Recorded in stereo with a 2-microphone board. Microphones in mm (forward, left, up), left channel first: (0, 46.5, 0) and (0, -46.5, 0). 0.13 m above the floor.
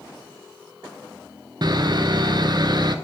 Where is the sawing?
50° right (ahead or behind), 0.7 m.